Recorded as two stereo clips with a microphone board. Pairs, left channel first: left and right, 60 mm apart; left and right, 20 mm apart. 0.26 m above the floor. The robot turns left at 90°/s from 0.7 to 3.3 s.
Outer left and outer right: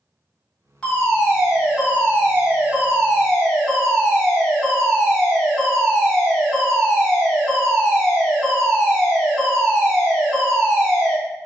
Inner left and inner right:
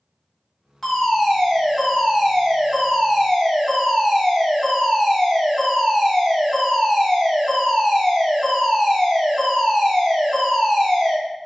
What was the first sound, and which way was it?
A fire alarm, 15° left (ahead or behind).